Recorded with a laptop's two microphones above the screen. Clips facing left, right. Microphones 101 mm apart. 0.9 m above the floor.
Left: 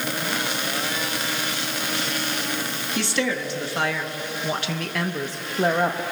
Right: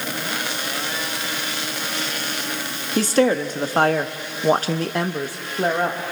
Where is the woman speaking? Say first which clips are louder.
Right 8 dB; 40° right (ahead or behind), 1.4 m; by 6.0 s 5° left (ahead or behind), 1.0 m.